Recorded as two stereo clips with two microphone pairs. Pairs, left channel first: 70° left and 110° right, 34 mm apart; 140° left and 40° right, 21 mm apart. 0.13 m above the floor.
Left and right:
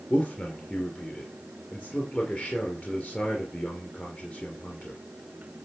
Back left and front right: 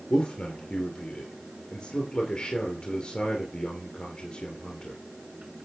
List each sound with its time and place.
0.1 s a man speaking: 100° left, 2.5 m